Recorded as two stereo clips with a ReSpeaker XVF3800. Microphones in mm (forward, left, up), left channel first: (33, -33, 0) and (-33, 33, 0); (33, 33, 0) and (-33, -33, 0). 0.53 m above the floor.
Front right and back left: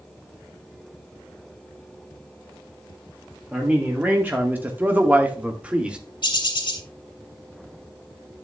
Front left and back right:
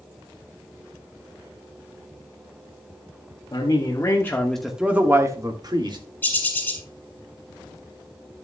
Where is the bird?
25° right, 2 m.